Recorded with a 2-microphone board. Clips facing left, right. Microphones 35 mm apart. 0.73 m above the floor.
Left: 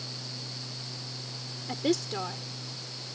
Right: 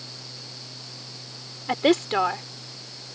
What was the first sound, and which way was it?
A woman speaking, 50° right (ahead or behind).